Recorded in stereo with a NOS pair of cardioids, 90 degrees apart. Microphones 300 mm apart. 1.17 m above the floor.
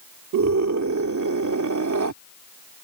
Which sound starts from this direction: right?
A scream, at 0.3 s.